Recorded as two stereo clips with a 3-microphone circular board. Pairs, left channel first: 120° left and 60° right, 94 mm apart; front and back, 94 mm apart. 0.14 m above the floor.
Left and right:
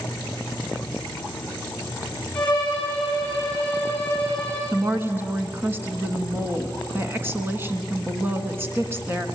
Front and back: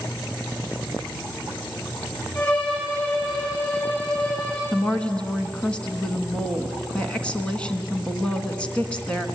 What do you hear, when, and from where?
2.4 s a violin: 40° left, 7 m
4.7 s a woman speaking: 60° right, 1.5 m